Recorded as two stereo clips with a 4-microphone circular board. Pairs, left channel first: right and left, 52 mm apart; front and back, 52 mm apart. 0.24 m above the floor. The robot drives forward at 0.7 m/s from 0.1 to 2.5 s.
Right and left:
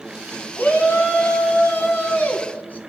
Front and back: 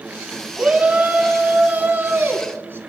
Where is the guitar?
I don't hear a guitar.